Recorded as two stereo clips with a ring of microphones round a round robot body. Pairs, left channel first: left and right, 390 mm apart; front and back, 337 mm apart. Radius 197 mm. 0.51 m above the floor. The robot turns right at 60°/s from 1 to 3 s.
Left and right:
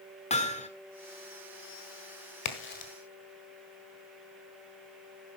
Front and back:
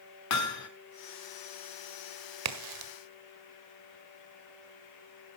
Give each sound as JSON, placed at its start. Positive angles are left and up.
{"t": 0.3, "sound": "hammering", "azimuth_deg": 20, "distance_m": 1.6}
{"t": 2.5, "sound": "a crack", "azimuth_deg": 140, "distance_m": 1.7}